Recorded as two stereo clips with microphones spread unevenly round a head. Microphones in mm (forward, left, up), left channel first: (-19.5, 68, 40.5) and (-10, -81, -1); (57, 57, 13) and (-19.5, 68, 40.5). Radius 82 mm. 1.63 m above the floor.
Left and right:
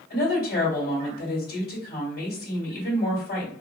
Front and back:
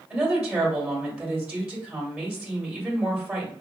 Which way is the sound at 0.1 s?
100° left.